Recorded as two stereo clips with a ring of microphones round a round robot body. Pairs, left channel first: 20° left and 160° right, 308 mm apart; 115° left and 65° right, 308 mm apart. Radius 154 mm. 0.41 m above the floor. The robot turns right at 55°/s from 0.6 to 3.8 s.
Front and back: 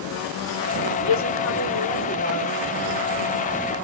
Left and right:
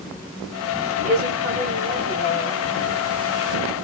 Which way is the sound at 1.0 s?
15° right.